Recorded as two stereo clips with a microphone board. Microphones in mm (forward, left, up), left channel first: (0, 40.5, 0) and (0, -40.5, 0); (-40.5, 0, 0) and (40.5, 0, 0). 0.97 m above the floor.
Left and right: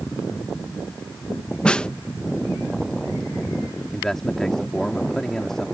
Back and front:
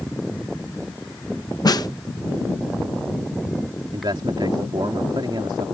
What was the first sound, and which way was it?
A snare drum, 165° left.